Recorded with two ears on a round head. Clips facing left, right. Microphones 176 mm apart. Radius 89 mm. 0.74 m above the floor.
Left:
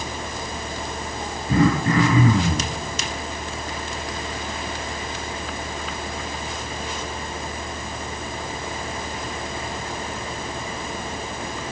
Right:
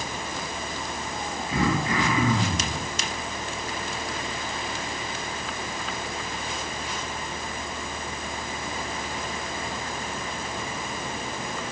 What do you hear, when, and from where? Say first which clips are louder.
1.5 s throat clearing: left 7 dB; 45° left (ahead or behind), 7.5 m